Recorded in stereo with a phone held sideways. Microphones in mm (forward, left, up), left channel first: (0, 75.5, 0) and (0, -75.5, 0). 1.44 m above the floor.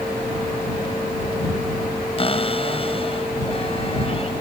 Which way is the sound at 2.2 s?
35° left (ahead or behind).